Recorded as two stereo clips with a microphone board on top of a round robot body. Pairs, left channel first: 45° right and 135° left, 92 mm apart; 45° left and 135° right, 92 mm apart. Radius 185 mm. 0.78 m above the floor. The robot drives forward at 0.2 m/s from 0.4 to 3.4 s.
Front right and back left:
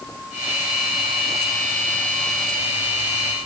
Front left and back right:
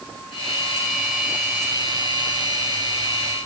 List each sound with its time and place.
Only background noise.